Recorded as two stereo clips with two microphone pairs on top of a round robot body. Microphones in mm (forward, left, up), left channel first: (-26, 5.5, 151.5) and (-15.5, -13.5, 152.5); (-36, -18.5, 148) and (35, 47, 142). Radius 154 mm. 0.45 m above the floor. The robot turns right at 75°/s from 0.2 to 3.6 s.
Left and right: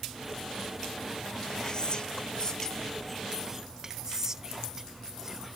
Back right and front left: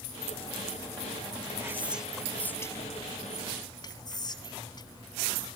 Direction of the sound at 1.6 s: 90° left.